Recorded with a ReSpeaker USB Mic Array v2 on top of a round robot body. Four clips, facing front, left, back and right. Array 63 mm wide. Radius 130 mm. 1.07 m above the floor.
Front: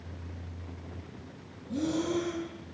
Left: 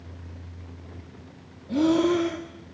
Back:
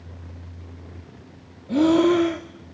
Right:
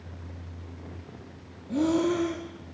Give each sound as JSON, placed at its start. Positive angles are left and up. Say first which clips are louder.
{"t": 1.7, "sound": "breathing", "louder": "left 4 dB, back 13 dB", "azimuth_deg": 170, "distance_m": 1.5}